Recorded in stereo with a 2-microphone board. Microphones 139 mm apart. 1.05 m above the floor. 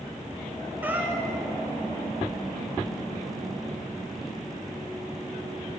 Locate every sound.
0.8 s a cat meowing: 15° right (ahead or behind), 1.4 m